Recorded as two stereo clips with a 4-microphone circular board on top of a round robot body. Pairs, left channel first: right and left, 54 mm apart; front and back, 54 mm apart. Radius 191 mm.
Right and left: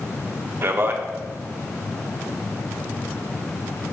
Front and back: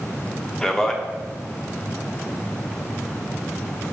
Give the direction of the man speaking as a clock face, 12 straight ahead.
9 o'clock.